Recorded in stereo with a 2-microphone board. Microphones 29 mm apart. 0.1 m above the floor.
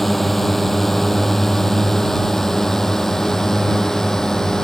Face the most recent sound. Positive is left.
turn(degrees=20)  # may be behind; listen again after turning